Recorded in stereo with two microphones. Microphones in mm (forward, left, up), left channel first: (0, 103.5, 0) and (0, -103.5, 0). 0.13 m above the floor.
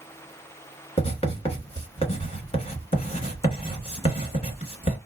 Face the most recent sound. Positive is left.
turn(degrees=30)  # may be behind; listen again after turning